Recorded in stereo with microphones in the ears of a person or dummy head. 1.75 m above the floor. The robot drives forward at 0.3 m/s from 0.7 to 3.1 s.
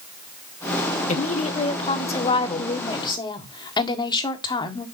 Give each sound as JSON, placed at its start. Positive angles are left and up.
{"t": 1.1, "sound": "a woman speaking", "side_deg": 40, "distance_m": 1.2}